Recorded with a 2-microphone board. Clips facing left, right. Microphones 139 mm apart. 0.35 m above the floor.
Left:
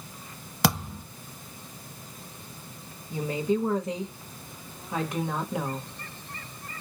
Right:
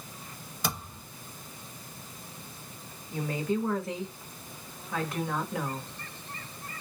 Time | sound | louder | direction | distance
0.6 | a thud | left 9 dB | 80° left | 0.8 m
3.1 | a woman speaking | left 3 dB | 20° left (ahead or behind) | 1.2 m